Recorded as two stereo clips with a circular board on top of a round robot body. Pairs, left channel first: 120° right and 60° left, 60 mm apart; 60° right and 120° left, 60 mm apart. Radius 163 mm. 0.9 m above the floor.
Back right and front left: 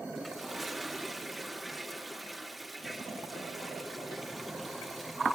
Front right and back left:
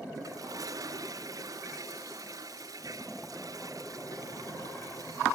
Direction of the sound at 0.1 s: 150° left.